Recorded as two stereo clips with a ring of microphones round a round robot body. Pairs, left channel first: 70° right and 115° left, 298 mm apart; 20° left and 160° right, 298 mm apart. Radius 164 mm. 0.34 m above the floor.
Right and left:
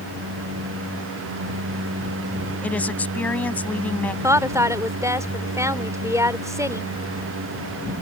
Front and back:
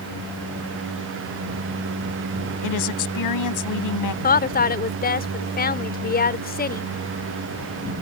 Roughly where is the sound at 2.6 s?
Ahead.